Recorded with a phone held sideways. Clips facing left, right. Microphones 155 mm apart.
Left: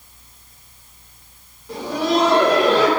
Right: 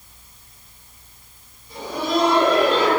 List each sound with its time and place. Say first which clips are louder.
1.7 s laughter: left 3 dB; 90° left, 9.5 m